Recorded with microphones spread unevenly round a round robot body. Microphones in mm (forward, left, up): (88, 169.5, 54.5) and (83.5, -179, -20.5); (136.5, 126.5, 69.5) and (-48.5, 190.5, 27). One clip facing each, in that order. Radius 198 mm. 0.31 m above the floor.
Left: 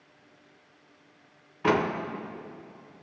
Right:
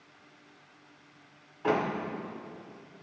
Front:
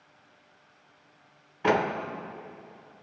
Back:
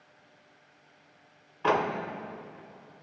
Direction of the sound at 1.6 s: 65° left.